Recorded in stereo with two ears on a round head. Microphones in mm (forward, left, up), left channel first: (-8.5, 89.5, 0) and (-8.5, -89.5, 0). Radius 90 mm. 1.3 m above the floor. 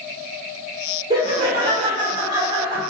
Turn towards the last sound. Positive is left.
turn(degrees=-15)  # may be behind; listen again after turning